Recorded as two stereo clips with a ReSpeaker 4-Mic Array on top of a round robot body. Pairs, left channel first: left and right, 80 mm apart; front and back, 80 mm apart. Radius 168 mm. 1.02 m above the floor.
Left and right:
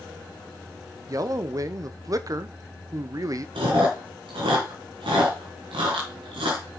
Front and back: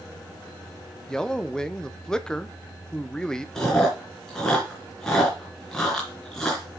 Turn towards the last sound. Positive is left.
turn(degrees=-85)